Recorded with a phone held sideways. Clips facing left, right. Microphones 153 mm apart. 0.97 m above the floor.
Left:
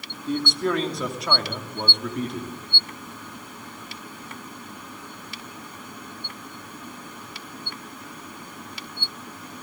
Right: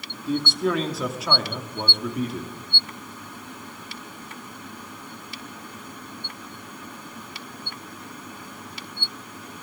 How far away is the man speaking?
About 2.5 m.